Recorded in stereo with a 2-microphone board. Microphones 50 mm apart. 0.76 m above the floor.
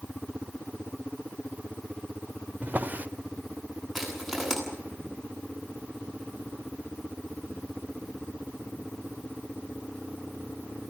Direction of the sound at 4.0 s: 5° left (ahead or behind).